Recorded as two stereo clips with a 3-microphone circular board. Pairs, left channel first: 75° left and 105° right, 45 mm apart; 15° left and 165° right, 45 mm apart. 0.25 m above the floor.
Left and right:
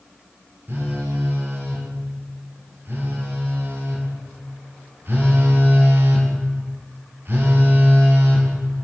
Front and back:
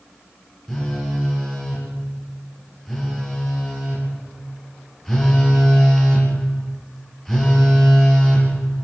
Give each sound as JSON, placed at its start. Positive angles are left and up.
{"t": 0.7, "sound": "a phone buzzing", "azimuth_deg": -70, "distance_m": 5.5}